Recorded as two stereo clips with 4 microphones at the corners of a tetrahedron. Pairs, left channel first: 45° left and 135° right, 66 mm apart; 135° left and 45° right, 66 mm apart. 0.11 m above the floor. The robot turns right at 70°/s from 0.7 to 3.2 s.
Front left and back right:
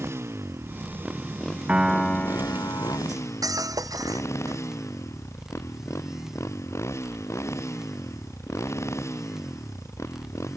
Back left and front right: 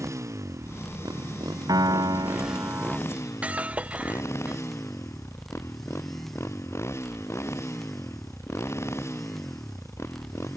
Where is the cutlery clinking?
120° right; by 4.6 s 115° right.